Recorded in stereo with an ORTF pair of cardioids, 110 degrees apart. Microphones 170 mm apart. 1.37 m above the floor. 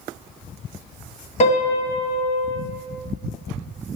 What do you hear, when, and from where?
1.4 s a piano: 45° left, 1.8 m